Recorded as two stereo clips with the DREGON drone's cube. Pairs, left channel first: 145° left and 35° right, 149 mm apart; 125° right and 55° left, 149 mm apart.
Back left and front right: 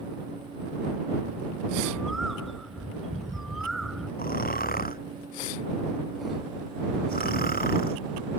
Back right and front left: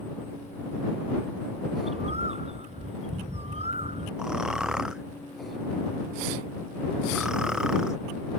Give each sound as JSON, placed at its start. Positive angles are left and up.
{"t": 1.8, "sound": "a bird", "azimuth_deg": 55}
{"t": 4.2, "sound": "snoring", "azimuth_deg": 140}